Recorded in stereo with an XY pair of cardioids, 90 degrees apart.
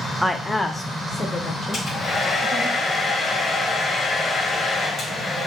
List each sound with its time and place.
0.2 s a woman speaking: straight ahead, 0.7 m; by 2.7 s 55° left, 2 m
1.7 s a hair dryer: 55° left, 2.5 m